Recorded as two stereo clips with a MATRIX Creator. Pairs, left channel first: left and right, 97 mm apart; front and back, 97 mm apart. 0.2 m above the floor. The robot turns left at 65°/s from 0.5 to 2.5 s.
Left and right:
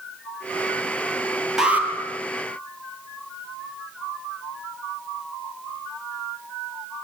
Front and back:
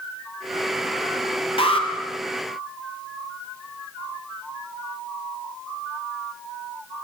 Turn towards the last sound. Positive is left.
turn(degrees=-65)